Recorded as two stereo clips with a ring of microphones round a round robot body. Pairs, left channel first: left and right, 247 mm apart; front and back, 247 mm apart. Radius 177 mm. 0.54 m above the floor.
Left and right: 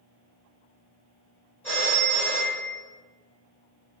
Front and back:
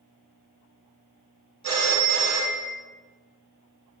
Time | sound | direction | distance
1.6 | a phone ringing | 175° left | 0.9 m